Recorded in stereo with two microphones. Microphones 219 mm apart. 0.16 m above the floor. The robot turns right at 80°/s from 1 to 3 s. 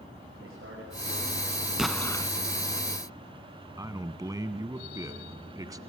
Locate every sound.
0.4 s a man speaking: 70° right, 8 m; by 1.4 s 40° right, 8 m
1.8 s an explosion: 5° right, 0.6 m; by 2.3 s 35° left, 0.6 m
3.8 s a man speaking: 15° right (ahead or behind), 1.0 m